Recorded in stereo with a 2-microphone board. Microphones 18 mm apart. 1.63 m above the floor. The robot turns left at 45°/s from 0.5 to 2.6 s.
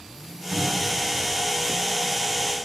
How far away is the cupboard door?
About 4.5 m.